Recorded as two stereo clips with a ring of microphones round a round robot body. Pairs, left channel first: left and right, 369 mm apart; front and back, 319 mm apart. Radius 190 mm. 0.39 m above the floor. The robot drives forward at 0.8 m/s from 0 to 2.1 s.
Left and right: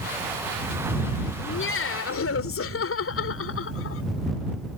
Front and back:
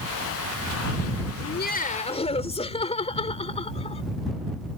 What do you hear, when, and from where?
1.4 s laughter: 40° left; by 4.0 s 60° left